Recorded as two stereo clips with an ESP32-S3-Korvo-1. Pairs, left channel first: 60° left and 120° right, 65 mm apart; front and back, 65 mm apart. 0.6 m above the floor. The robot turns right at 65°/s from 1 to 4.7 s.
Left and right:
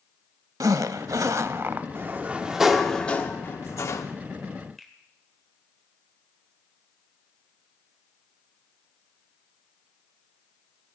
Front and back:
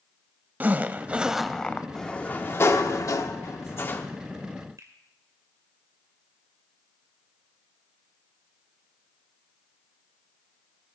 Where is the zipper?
120° right, 0.6 m; by 1.9 s 65° right, 0.6 m.